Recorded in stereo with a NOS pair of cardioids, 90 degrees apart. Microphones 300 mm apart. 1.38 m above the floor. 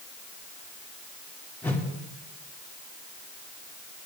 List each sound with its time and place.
1.6 s a whoosh: 5° left, 3 m